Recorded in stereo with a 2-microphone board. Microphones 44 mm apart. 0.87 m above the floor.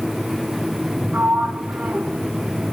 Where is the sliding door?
35° right (ahead or behind), 0.9 m.